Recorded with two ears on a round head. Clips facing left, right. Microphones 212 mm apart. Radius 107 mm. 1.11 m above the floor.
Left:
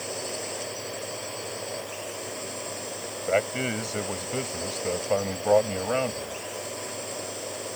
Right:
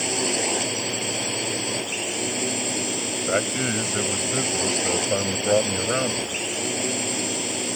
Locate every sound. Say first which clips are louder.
0.0 s a drone: right 8 dB; 80° right
3.3 s a man speaking: even; 15° right (ahead or behind)